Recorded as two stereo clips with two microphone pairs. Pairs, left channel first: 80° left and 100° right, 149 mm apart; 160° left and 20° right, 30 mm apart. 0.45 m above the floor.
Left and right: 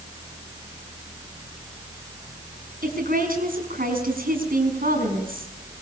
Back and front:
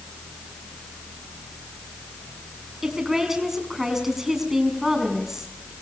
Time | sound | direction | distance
2.8 | a woman speaking | 95° right | 5 m